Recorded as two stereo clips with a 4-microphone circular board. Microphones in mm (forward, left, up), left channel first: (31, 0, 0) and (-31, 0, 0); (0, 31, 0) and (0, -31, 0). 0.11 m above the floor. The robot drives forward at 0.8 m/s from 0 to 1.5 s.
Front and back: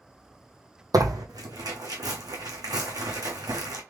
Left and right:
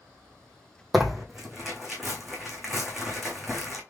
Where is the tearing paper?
Straight behind, 0.7 m.